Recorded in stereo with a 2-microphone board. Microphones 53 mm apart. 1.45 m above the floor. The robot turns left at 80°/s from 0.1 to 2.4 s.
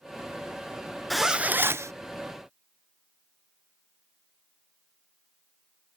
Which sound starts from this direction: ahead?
A zipper, at 1.1 s.